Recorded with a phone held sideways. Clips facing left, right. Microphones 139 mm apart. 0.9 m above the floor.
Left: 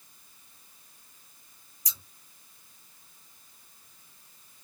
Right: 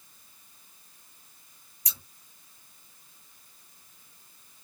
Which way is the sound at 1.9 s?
65° right (ahead or behind).